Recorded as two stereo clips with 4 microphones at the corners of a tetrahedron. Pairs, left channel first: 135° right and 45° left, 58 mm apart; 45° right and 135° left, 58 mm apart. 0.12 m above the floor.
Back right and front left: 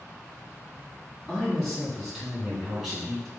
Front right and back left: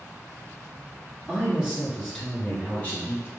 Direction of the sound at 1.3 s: 120° left.